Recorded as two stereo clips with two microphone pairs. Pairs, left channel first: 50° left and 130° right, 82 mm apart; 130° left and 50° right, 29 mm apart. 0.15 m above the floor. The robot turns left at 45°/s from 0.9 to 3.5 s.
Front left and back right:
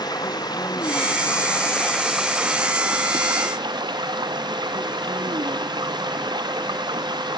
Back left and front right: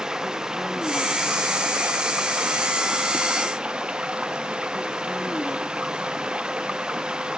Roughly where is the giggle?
I don't hear a giggle.